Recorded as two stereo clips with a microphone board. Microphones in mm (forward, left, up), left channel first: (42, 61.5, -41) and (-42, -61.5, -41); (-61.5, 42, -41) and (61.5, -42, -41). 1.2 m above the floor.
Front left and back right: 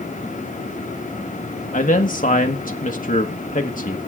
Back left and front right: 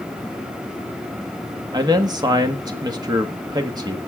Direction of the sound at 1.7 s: 30° left.